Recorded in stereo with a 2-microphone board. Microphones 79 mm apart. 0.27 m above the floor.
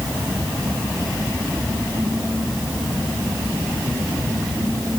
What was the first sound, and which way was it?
Only background noise.